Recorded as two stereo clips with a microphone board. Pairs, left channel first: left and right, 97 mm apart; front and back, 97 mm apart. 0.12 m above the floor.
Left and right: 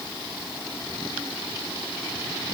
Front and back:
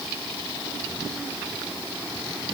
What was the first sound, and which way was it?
Only background noise.